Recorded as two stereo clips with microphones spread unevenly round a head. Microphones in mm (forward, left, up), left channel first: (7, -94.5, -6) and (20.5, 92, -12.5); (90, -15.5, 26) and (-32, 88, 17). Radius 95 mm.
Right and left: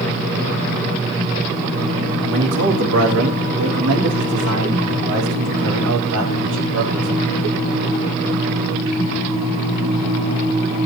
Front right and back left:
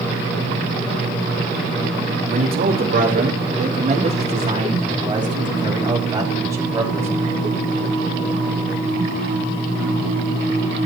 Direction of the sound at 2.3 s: 115° left.